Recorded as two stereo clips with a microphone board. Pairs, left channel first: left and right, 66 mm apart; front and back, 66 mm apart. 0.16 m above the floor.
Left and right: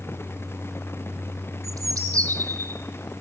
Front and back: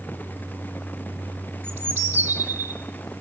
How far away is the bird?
About 3.5 m.